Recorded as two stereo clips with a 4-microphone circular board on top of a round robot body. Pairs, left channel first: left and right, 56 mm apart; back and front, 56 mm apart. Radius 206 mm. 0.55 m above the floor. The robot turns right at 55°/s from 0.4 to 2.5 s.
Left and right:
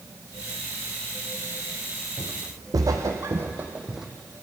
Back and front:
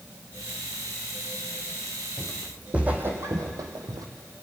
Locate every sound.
2.2 s footsteps: 105° right, 2.5 m; by 4.1 s 5° right, 1.8 m